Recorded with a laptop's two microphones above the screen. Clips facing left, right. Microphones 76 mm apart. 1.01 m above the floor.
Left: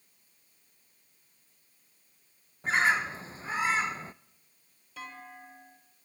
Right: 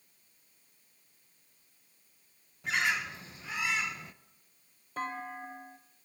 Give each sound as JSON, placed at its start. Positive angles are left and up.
{"t": 2.6, "sound": "a bird", "side_deg": 35, "distance_m": 0.5}
{"t": 5.0, "sound": "a clunk", "side_deg": -40, "distance_m": 0.9}